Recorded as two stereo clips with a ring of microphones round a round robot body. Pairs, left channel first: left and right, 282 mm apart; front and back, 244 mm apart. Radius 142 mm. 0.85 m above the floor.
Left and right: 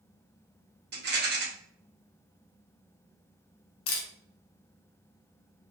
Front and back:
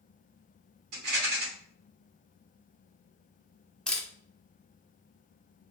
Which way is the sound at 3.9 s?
85° left.